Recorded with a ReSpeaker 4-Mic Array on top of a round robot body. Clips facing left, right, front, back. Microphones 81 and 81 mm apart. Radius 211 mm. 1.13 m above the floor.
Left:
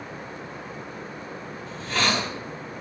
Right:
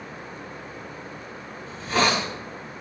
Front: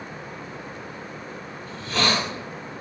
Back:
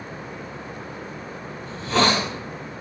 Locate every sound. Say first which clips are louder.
1.7 s a hiss: right 3 dB, back 4 dB; 160° right, 1.9 m